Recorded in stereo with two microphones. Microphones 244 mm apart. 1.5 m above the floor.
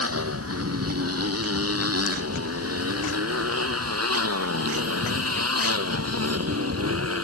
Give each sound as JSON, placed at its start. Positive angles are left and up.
{"t": 0.0, "sound": "a motorcycle", "side_deg": -75}